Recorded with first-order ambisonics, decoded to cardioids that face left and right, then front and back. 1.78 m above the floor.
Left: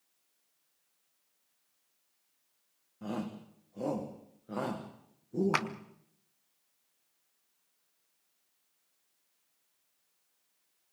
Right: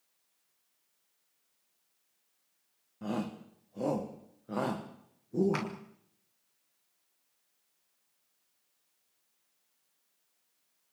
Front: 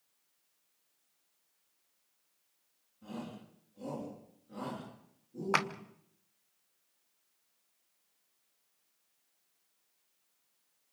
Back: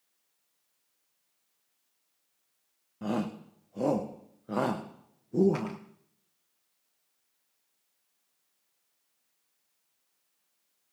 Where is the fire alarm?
I don't hear a fire alarm.